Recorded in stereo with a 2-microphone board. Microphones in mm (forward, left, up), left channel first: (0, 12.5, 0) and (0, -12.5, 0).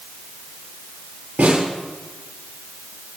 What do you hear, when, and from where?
1.4 s a snare drum: 80° right, 8.5 m